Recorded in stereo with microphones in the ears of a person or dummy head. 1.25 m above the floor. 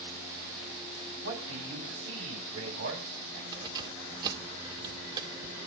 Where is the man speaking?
85° right, 8 m.